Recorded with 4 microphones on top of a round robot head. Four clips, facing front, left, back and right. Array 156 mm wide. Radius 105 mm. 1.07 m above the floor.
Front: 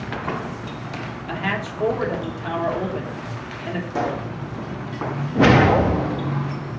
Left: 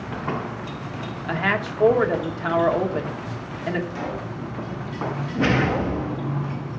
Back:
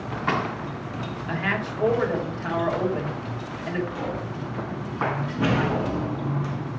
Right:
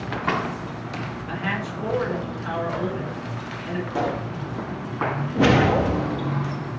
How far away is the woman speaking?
About 3 m.